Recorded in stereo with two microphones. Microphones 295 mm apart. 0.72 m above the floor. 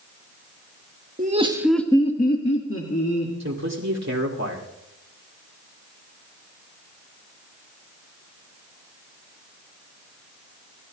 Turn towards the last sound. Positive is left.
turn(degrees=-65)  # may be behind; listen again after turning